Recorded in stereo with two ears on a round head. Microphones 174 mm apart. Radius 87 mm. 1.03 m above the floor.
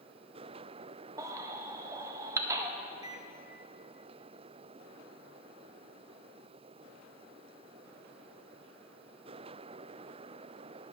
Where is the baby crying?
15° right (ahead or behind), 0.5 m.